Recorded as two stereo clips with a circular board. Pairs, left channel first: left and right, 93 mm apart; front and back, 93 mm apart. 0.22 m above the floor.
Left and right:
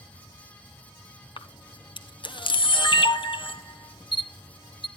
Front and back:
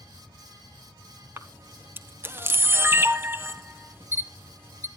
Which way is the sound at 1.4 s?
115° left.